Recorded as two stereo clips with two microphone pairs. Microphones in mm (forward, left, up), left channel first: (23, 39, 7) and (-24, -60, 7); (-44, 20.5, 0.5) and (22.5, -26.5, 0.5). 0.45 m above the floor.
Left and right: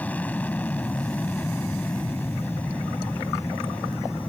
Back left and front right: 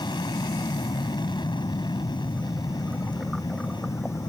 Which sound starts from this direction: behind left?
An aircraft, at 0.0 s.